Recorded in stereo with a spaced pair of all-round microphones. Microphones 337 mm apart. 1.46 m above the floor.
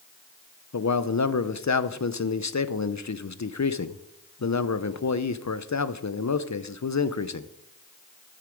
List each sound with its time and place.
0.7 s a man speaking: 55° left (ahead or behind), 0.6 m